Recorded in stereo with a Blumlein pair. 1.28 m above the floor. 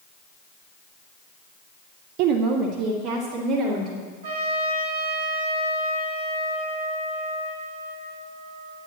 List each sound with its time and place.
2.2 s a woman speaking: 45° right, 0.6 m; by 4.1 s 40° right, 3.5 m
4.2 s a trumpet: 55° right, 3.5 m